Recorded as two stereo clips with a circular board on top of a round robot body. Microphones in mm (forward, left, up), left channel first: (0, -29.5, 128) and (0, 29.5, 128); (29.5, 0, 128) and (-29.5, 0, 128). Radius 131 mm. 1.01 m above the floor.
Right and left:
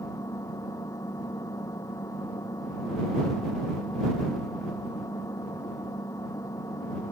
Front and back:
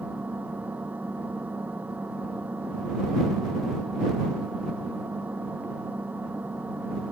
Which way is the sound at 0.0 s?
115° right.